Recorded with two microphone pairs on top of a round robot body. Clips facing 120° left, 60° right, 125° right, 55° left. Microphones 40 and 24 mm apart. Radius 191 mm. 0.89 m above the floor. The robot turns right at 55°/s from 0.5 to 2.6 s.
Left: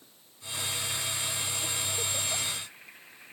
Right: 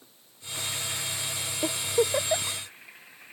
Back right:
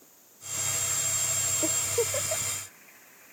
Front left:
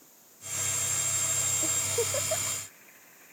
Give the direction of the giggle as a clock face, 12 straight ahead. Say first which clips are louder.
Right 8 dB, back right 4 dB; 3 o'clock.